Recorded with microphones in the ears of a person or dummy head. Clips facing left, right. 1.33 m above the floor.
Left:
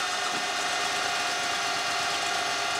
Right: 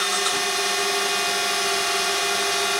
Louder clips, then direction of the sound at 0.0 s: Right 6 dB; 65° right (ahead or behind).